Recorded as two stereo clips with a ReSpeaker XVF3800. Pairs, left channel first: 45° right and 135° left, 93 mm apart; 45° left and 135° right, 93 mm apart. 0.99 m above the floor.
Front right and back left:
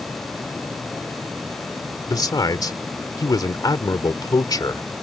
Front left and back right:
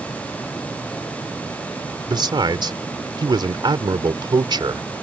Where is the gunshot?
No gunshot in this recording.